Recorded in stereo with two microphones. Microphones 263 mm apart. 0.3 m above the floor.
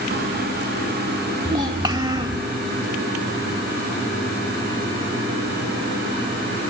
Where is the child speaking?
15° right (ahead or behind), 0.7 m.